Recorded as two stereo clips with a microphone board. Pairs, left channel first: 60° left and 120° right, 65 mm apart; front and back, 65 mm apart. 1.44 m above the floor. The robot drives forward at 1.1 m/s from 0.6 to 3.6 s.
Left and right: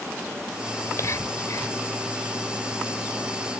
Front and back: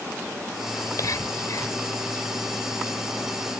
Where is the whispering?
25° left; by 1.8 s 30° left.